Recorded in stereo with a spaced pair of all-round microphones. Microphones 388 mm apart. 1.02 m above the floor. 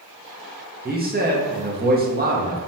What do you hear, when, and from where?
0.8 s a man speaking: 25° right (ahead or behind), 0.5 m